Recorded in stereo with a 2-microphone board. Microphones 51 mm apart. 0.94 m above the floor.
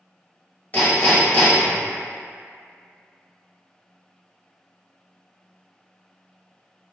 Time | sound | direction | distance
0.7 | hammering | 30° left (ahead or behind) | 1.2 m